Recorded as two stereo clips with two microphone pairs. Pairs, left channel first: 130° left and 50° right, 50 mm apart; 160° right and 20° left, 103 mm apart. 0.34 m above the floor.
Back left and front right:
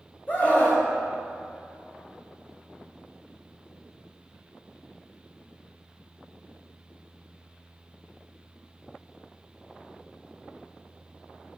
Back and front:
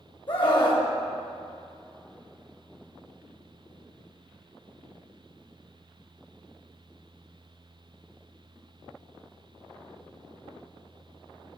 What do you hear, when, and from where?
0.3 s a scream: 175° right, 1.8 m